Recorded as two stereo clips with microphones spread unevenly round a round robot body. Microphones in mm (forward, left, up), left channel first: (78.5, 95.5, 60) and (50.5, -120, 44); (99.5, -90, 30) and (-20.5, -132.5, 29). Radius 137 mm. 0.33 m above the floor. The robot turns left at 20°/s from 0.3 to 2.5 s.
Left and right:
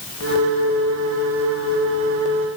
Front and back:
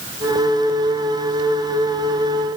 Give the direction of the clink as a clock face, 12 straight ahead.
I don't hear a clink.